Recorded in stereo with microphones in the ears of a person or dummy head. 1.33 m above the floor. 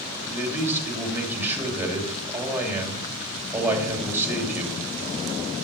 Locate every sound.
0.3 s a man speaking: 15° right (ahead or behind), 2.5 m